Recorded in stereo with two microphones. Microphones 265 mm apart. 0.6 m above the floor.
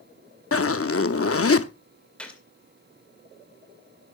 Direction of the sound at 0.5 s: 60° left (ahead or behind).